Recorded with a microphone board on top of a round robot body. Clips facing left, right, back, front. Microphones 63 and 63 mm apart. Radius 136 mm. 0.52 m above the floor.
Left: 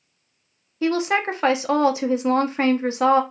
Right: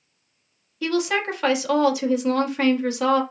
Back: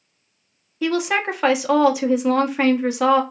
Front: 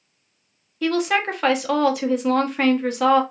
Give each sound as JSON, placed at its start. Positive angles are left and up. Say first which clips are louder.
{"t": 0.8, "sound": "a woman speaking", "louder": "left 2 dB, even", "azimuth_deg": 105, "distance_m": 0.7}